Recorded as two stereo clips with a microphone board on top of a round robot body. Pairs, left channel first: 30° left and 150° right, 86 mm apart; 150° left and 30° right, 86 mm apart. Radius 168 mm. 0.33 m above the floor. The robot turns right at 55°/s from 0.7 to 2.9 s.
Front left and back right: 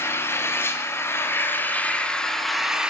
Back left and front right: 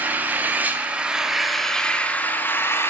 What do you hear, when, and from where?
0.0 s an engine running: 20° left, 1.0 m; by 2.9 s 140° left, 1.0 m